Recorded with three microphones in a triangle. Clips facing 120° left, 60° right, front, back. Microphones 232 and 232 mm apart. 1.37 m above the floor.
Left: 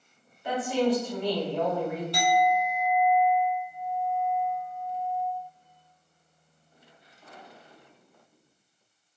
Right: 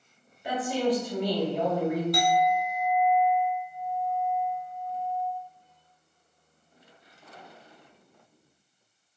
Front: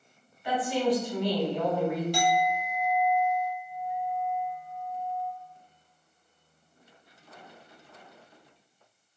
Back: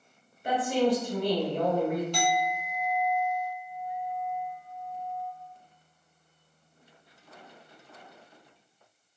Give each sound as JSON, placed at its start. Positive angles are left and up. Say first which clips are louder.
{"t": 0.4, "sound": "a woman speaking", "louder": "left 1 dB, back 1 dB", "azimuth_deg": -135, "distance_m": 1.3}
{"t": 2.1, "sound": "a clink", "louder": "even, front 2 dB", "azimuth_deg": 75, "distance_m": 0.7}